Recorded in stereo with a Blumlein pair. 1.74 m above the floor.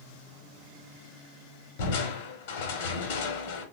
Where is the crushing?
50° left, 0.8 m.